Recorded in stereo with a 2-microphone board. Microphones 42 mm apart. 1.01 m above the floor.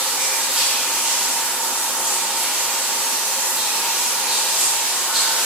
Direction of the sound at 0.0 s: 20° right (ahead or behind).